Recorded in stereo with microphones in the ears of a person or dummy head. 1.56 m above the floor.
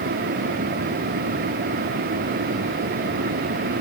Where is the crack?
No crack in this recording.